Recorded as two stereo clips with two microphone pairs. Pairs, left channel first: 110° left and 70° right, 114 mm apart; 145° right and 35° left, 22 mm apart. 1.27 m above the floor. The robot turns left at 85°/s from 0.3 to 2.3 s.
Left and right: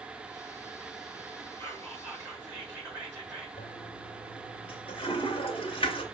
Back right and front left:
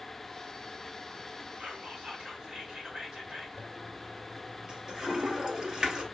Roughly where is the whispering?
Ahead left.